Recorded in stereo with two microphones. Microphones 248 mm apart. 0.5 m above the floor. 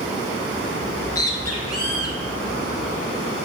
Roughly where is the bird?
Left.